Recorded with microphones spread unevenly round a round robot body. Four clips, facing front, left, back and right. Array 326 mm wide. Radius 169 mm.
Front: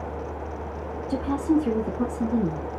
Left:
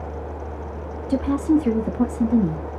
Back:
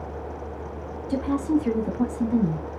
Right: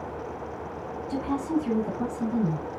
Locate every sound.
1.1 s a woman speaking: 100° left, 0.9 m